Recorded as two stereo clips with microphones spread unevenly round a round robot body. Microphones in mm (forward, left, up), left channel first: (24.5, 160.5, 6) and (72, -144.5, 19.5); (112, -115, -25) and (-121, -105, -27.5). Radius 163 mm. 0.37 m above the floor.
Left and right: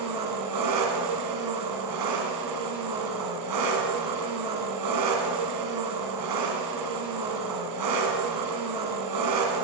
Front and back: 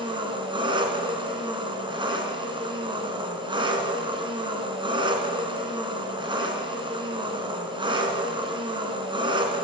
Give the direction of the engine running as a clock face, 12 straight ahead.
4 o'clock.